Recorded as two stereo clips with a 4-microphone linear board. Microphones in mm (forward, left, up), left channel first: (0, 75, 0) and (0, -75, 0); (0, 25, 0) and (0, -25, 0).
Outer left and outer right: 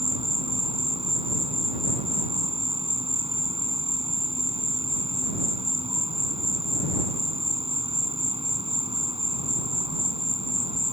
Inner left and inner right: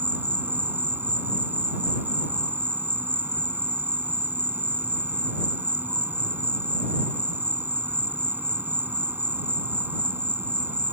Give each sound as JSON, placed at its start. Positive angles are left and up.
{"t": 0.0, "sound": "an insect", "side_deg": -40}